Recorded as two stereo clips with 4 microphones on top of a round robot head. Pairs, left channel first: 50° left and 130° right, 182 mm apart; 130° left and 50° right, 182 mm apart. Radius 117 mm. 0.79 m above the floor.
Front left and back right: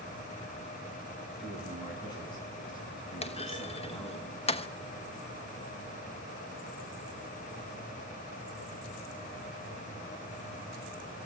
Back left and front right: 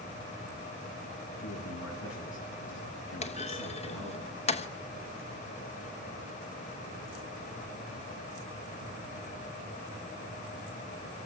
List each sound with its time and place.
1.4 s a man speaking: 115° left, 7 m
3.2 s a clunk: 90° left, 1.1 m